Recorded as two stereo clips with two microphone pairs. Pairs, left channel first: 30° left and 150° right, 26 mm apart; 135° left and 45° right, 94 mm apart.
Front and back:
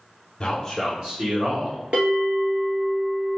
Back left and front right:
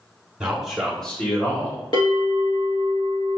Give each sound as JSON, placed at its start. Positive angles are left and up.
{"t": 0.4, "sound": "a man speaking", "azimuth_deg": 20, "distance_m": 1.1}
{"t": 1.9, "sound": "a bell", "azimuth_deg": 170, "distance_m": 1.6}